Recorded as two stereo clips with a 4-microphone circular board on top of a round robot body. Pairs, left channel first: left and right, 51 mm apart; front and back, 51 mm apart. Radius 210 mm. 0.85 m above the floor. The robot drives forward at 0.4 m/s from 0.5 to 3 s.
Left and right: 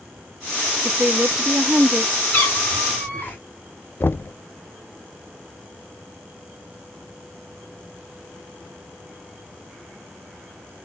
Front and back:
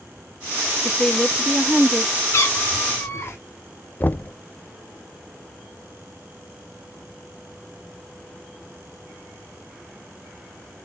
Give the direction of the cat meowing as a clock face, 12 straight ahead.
11 o'clock.